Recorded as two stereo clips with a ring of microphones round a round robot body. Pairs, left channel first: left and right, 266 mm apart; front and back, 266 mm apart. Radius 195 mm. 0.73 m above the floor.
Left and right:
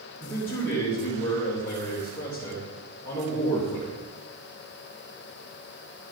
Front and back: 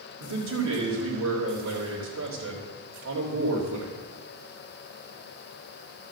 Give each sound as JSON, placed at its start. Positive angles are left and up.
{"t": 0.2, "sound": "a man speaking", "azimuth_deg": 175, "distance_m": 3.5}